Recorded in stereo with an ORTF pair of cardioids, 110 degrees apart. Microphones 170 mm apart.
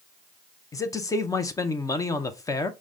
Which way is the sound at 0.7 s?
20° left.